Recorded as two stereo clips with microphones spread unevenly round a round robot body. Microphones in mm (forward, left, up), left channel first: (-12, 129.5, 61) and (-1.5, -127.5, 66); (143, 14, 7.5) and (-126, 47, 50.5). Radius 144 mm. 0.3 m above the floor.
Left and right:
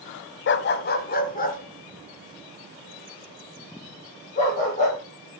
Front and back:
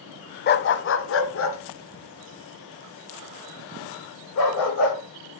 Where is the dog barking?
45° left, 0.6 m; by 5.0 s 30° left, 5 m.